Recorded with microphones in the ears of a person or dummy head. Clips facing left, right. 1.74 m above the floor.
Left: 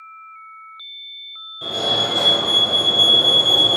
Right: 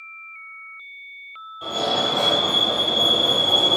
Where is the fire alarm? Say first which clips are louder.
Even; 30° left (ahead or behind), 0.9 m.